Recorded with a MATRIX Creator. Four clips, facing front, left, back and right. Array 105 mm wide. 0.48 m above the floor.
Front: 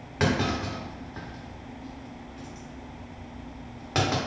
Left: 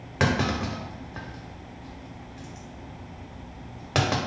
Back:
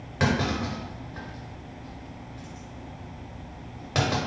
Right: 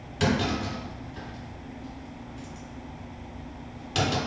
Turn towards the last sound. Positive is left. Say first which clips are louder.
# left 1 dB, even
turn(degrees=80)